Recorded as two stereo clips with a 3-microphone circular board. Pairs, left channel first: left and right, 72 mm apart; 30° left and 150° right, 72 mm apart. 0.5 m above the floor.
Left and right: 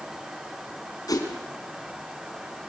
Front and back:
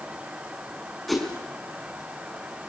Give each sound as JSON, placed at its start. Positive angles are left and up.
{"t": 1.1, "sound": "a whoosh", "azimuth_deg": 120, "distance_m": 4.5}